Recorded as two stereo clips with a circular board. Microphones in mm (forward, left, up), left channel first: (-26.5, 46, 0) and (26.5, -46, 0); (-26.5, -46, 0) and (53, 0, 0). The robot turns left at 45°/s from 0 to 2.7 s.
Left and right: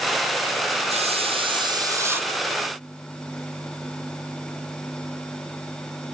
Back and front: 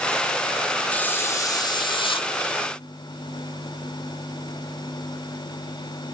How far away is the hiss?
About 0.8 m.